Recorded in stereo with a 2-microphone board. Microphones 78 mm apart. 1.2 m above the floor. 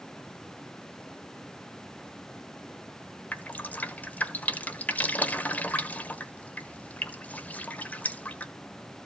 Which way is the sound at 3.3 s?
20° left (ahead or behind).